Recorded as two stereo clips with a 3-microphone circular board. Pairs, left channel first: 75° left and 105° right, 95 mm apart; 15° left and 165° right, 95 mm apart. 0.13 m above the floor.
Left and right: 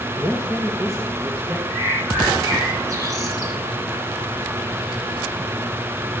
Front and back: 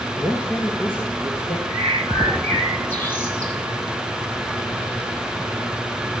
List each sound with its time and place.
0.2 s a man speaking: 60° right, 1.4 m; by 1.6 s 45° right, 2.5 m
1.7 s a bird: 50° right, 2.5 m